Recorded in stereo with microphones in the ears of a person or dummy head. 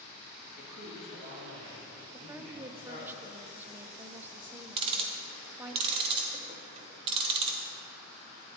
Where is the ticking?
30° right (ahead or behind), 0.8 m.